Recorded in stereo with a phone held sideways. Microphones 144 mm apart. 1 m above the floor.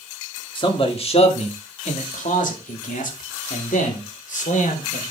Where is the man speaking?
40° left (ahead or behind), 2.5 m; by 5.0 s 70° left (ahead or behind), 3.5 m.